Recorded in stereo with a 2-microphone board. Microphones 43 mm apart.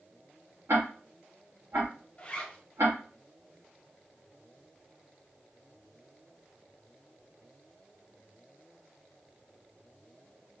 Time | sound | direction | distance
0.7 | ticking | 65° right (ahead or behind) | 1.2 m
2.2 | a zipper | 25° left (ahead or behind) | 0.7 m